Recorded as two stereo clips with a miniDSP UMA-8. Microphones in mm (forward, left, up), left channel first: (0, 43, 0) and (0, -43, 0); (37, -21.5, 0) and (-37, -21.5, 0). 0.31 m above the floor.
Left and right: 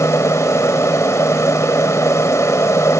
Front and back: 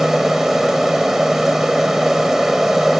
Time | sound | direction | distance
0.0 | an aircraft | 100° left | ?